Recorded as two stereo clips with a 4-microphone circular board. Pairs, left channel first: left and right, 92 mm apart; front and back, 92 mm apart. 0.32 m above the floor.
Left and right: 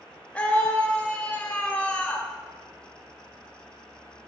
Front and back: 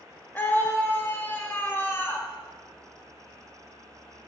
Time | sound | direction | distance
0.3 | a scream | 35° left | 1.1 m